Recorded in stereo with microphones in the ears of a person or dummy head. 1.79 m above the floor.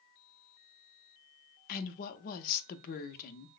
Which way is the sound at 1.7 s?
45° left (ahead or behind).